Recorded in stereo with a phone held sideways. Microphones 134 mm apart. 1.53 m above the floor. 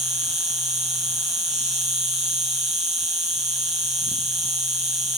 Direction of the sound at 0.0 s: 55° right (ahead or behind).